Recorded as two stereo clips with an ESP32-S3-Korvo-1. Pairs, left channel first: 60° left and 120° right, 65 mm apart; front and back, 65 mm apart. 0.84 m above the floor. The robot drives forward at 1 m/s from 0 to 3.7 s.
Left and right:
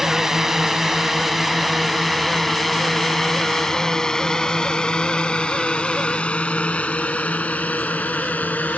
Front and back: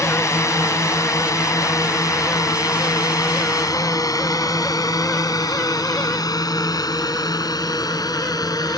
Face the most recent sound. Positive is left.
turn(degrees=-5)